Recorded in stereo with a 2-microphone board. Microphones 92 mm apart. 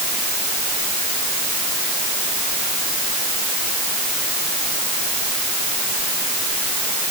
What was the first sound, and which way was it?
Only background noise.